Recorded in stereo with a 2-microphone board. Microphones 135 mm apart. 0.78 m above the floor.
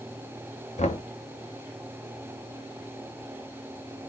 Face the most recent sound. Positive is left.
turn(degrees=55)  # may be behind; listen again after turning